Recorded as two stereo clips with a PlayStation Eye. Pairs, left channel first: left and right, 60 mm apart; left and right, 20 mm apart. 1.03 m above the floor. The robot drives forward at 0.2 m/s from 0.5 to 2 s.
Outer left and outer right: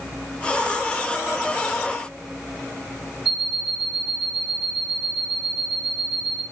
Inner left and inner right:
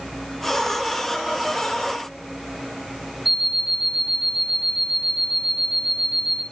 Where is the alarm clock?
5° right (ahead or behind), 2.5 m.